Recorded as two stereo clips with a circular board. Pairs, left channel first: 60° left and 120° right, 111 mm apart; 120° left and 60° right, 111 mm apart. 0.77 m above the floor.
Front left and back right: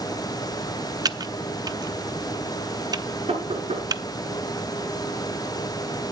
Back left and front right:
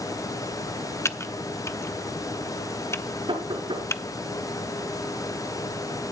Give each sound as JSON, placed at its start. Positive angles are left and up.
{"t": 1.1, "sound": "typing on a keyboard", "azimuth_deg": -175, "distance_m": 0.7}
{"t": 3.3, "sound": "knocking", "azimuth_deg": -100, "distance_m": 7.5}